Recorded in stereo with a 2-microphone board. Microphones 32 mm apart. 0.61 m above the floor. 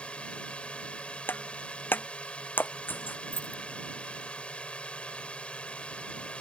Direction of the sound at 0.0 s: 35° left (ahead or behind).